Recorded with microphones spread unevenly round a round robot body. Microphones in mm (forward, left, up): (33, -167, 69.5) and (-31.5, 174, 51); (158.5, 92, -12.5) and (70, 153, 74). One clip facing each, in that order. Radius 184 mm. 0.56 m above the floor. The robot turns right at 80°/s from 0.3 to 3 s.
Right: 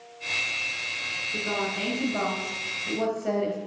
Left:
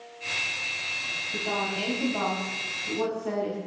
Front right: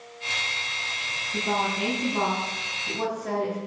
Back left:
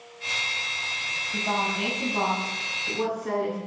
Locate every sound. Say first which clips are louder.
1.3 s a woman speaking: right 1 dB, front right 1 dB; 175° left, 4.5 m; by 3.6 s 50° right, 4.5 m